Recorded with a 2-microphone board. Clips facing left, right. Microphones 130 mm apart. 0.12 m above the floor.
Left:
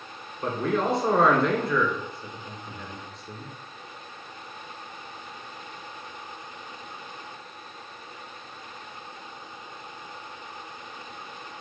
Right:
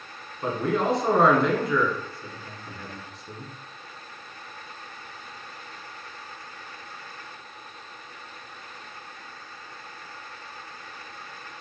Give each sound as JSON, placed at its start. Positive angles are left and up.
{"t": 0.4, "sound": "a man speaking", "side_deg": 0, "distance_m": 1.4}